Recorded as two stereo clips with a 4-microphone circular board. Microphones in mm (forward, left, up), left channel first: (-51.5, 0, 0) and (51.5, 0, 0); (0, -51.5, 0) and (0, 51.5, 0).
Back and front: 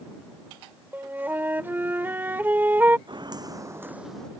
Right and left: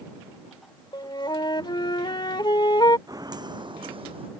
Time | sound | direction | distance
0.9 | a flute | 65° right | ?
3.1 | footsteps | 40° left | ?